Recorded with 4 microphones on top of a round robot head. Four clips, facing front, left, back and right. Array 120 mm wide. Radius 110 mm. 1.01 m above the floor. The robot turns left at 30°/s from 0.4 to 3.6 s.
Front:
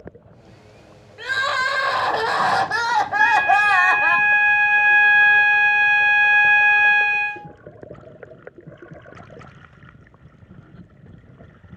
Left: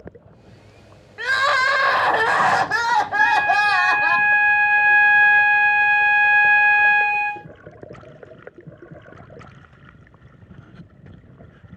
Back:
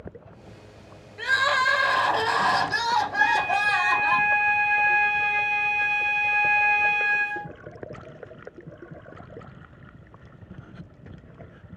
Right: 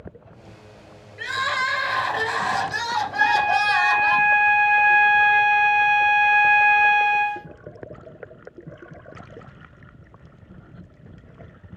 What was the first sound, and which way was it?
Crying, 95° left.